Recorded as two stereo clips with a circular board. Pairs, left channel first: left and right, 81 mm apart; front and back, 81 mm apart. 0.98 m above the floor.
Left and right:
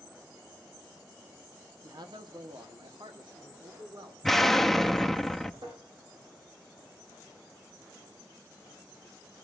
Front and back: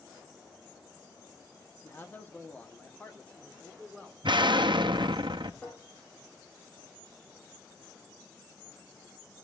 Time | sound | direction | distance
1.8 | a man speaking | 60° right | 0.9 m
4.2 | an explosion | 175° left | 0.6 m
5.6 | tapping | 75° right | 7 m